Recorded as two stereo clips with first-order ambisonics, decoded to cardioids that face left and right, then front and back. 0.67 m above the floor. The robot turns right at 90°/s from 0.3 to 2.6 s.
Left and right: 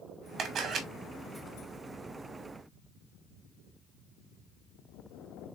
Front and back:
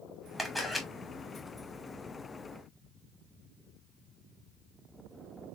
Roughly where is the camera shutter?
Right.